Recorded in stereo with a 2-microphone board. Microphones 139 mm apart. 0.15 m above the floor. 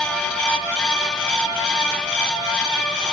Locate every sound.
Only background noise.